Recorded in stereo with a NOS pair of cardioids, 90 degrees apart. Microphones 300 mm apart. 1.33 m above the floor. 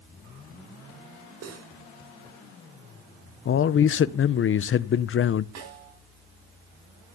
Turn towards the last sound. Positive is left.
turn(degrees=-65)